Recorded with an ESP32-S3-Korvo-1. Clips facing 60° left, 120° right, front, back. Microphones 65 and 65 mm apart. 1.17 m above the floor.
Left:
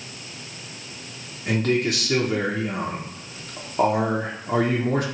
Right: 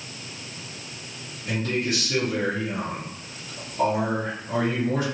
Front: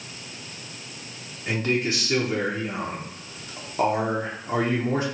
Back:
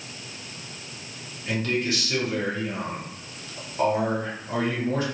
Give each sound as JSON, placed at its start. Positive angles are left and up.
{"t": 1.5, "sound": "a man speaking", "azimuth_deg": 60, "distance_m": 0.9}